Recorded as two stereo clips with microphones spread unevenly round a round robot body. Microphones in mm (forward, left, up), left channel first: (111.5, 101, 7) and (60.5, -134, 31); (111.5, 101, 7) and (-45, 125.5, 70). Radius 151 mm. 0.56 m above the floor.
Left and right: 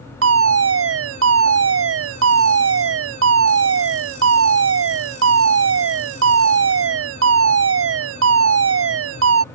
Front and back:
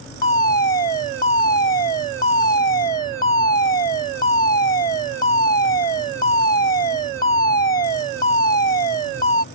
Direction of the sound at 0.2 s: 75° right.